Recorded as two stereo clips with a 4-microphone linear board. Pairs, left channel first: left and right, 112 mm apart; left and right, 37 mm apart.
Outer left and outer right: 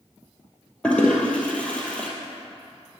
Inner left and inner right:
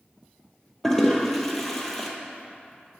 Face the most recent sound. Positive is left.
turn(degrees=10)  # may be behind; listen again after turning